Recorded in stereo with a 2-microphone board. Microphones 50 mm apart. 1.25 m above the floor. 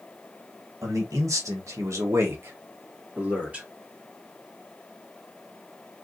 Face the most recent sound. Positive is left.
turn(degrees=-25)  # may be behind; listen again after turning